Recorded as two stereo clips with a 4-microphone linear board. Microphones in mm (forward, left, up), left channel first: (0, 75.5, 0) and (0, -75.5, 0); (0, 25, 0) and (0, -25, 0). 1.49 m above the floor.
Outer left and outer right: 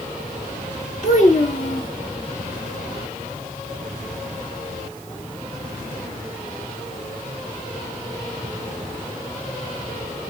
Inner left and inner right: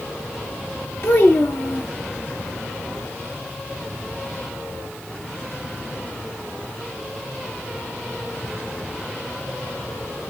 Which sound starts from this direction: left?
A child speaking, at 1.0 s.